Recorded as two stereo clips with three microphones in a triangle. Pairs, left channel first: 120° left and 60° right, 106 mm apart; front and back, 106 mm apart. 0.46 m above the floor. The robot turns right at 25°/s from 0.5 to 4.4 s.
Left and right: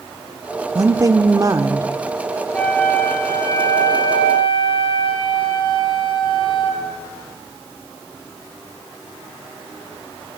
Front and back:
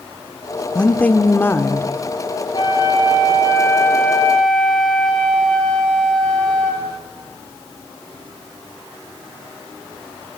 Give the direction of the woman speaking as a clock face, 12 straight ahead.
2 o'clock.